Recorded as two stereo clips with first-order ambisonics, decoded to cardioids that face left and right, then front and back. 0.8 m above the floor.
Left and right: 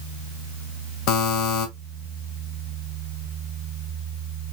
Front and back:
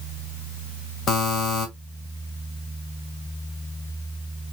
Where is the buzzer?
60° left, 1.5 m.